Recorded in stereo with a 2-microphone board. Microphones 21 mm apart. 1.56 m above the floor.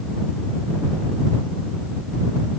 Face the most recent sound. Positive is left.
No sound to turn to.